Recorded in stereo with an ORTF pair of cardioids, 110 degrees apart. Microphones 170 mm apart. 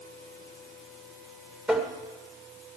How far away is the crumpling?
I don't hear crumpling.